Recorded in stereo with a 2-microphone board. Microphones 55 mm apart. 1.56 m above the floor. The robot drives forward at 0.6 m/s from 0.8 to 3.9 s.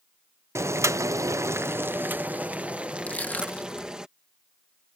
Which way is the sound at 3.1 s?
30° left (ahead or behind).